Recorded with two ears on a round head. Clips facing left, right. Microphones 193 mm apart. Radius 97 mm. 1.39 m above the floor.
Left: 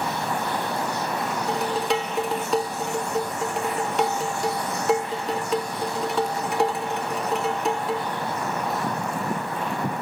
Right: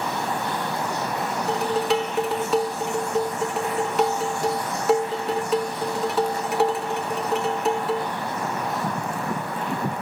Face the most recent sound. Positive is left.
turn(degrees=0)  # may be behind; listen again after turning